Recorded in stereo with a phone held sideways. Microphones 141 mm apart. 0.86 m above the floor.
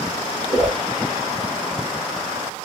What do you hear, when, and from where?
0.5 s a whoosh: 35° right (ahead or behind), 1.2 m